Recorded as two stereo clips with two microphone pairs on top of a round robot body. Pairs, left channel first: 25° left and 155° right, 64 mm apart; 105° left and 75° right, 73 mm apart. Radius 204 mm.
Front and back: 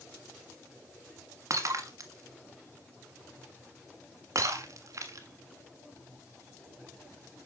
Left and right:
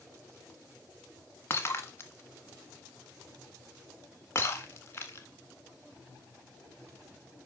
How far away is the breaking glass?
About 1.3 m.